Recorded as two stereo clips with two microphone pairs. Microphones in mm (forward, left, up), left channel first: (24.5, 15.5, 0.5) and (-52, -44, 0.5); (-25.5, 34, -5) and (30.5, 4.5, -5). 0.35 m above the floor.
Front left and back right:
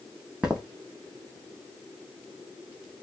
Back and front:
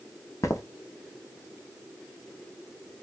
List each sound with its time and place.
0.4 s footsteps: 140° left, 0.7 m